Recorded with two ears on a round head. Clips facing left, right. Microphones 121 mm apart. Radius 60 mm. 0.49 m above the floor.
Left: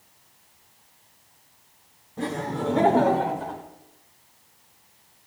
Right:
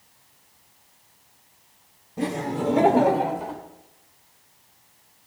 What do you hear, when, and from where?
2.2 s laughter: 15° right (ahead or behind), 1.2 m